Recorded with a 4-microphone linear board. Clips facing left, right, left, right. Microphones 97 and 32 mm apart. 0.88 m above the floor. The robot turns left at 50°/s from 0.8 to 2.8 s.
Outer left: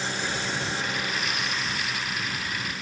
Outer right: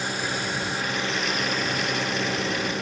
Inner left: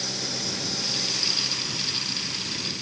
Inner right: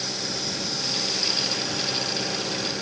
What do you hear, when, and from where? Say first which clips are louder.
0.0 s an engine running: outer right 2 dB, inner right 1 dB; 10° right; by 2.8 s 110° right